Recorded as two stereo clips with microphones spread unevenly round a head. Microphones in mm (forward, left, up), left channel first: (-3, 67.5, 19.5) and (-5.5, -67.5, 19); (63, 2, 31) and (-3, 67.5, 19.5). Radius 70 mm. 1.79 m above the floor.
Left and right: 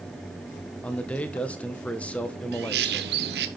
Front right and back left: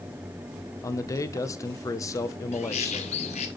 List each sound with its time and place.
0.8 s a man speaking: 10° left, 1.5 m
2.5 s a bird: 80° right, 1.3 m